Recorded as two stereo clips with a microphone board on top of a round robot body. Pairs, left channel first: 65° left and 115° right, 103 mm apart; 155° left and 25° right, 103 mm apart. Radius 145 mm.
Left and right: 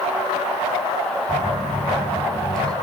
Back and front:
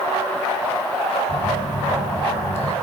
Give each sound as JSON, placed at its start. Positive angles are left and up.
{"t": 1.3, "sound": "a phone buzzing", "azimuth_deg": 150, "distance_m": 3.5}